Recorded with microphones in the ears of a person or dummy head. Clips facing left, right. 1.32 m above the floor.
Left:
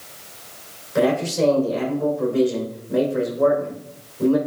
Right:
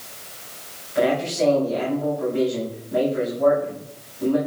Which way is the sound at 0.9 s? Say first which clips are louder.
Left 2 dB; 90° left.